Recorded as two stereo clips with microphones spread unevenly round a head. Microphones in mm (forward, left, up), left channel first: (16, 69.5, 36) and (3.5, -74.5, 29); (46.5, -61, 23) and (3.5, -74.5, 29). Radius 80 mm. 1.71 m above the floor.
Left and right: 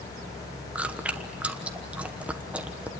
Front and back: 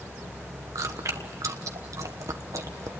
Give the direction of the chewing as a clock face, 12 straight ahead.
6 o'clock.